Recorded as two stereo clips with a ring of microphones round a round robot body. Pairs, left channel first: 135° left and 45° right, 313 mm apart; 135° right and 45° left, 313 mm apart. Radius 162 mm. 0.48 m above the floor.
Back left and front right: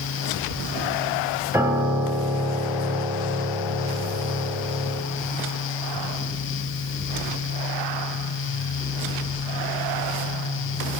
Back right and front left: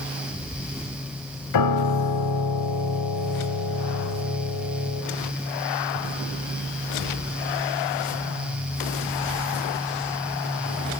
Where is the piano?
125° right, 3.5 m.